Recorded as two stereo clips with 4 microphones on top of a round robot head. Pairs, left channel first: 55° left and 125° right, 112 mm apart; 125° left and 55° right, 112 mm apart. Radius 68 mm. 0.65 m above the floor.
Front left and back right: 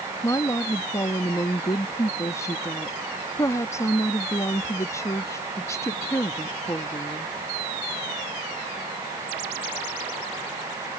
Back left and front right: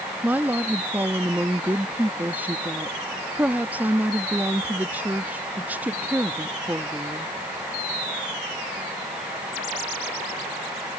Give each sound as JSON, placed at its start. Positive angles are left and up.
{"t": 0.2, "sound": "a woman speaking", "azimuth_deg": 10}